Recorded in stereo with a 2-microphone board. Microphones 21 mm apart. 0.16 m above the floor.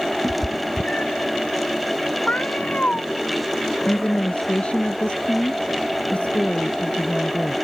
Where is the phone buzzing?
I don't hear a phone buzzing.